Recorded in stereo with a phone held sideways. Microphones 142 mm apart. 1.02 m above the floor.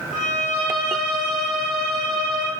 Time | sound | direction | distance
0.1 | a violin | 65° left (ahead or behind) | 1.1 m